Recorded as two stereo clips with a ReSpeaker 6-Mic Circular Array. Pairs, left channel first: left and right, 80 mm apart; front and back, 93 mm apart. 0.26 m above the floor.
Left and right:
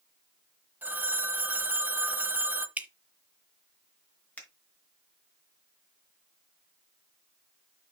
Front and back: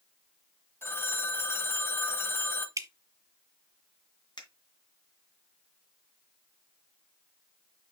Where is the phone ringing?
40° right, 0.9 m.